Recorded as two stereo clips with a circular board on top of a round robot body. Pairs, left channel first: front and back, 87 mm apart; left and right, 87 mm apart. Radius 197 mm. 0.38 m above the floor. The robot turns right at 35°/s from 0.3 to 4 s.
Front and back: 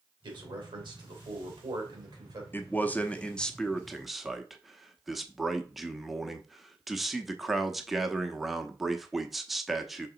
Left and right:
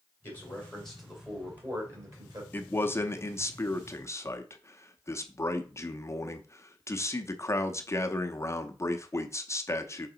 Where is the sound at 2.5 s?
40° left, 1.1 m; by 10.1 s 95° left, 1.1 m.